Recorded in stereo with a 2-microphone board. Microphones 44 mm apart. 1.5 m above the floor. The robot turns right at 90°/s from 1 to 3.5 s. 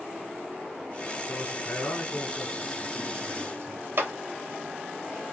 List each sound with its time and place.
1.3 s a man speaking: 45° left, 3 m; by 3.9 s 115° right, 3 m
4.0 s a clap: 65° right (ahead or behind), 0.9 m